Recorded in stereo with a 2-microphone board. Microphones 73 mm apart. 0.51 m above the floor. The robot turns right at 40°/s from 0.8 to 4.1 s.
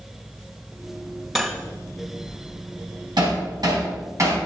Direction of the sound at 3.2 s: 75° right (ahead or behind).